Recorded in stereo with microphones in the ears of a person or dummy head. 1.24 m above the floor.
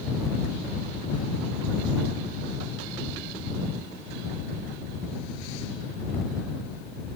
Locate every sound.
Only background noise.